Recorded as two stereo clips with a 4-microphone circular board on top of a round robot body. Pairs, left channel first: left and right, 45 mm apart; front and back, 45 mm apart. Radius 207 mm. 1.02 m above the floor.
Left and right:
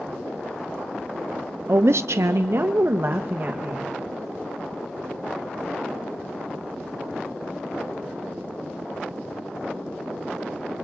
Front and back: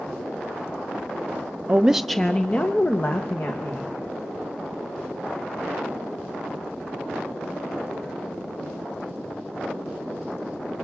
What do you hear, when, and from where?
1.7 s a woman speaking: 120° right, 0.6 m; by 3.9 s 35° right, 1.7 m